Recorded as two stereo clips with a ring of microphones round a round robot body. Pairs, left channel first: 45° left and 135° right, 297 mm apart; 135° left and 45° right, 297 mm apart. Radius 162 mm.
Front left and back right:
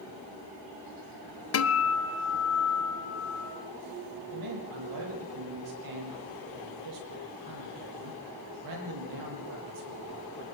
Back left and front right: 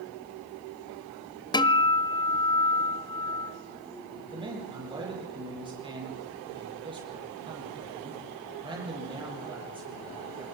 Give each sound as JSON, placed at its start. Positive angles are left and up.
{"t": 1.5, "sound": "a guitar", "azimuth_deg": 65, "distance_m": 1.1}
{"t": 4.2, "sound": "a man speaking", "azimuth_deg": -120, "distance_m": 9.0}